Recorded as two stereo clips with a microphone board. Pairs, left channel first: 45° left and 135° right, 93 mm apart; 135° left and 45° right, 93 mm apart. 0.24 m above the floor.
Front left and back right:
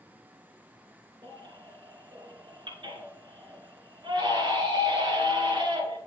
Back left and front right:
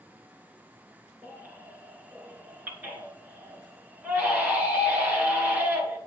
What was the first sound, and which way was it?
A baby crying, 115° right.